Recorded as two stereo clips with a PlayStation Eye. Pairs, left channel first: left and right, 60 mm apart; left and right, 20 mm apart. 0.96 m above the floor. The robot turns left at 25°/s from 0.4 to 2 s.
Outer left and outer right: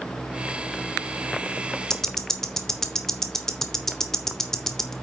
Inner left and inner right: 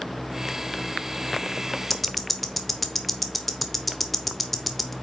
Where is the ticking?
10° left (ahead or behind), 0.9 m; by 4.9 s 5° left (ahead or behind), 0.9 m.